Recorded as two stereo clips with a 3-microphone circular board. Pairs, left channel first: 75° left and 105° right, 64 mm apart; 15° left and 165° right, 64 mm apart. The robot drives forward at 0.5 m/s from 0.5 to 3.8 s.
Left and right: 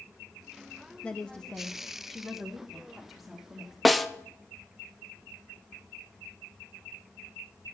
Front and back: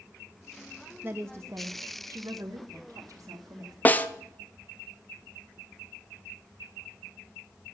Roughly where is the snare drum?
Ahead.